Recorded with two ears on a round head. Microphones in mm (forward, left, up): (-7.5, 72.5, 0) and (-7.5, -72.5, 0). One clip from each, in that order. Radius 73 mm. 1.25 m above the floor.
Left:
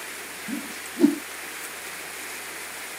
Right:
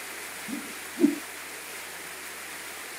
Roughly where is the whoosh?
Left.